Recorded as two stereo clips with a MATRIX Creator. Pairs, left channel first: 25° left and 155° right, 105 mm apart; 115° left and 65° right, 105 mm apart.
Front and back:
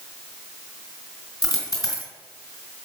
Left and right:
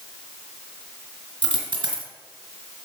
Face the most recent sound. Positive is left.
turn(degrees=-35)